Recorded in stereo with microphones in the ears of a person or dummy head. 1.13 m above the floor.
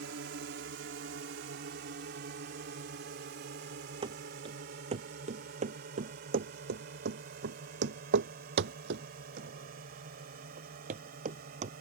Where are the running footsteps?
30° right (ahead or behind); by 11.7 s 45° right (ahead or behind).